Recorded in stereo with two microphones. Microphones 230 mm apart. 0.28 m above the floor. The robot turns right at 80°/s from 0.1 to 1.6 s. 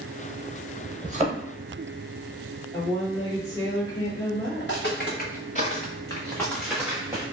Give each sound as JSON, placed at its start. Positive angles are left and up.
{"t": 1.0, "sound": "a thud", "side_deg": -35, "distance_m": 0.6}
{"t": 2.7, "sound": "a woman speaking", "side_deg": 15, "distance_m": 1.4}
{"t": 4.6, "sound": "footsteps", "side_deg": 55, "distance_m": 1.3}